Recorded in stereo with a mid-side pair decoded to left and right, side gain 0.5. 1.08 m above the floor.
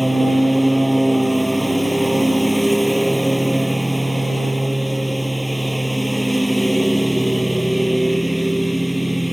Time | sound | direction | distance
0.0 | a lawn mower | 5° right | ?